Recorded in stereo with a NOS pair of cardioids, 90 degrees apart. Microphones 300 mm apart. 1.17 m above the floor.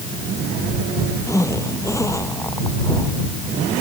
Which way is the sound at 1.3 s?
10° left.